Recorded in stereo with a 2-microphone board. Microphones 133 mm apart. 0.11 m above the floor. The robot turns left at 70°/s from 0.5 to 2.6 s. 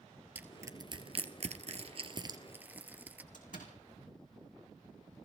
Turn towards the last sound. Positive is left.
turn(degrees=80)